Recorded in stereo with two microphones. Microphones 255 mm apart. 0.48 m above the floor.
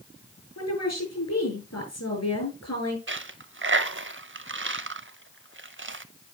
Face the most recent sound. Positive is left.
turn(degrees=-50)  # may be behind; listen again after turning